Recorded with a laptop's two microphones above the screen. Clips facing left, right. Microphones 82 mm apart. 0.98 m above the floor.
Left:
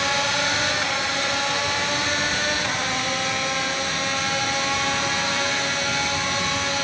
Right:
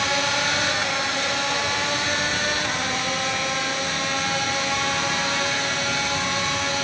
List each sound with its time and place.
Only background noise.